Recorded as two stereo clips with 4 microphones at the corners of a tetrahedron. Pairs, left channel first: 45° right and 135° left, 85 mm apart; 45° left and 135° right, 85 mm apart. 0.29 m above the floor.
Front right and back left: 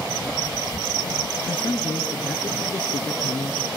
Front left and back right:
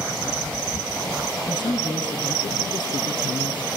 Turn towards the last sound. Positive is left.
turn(degrees=30)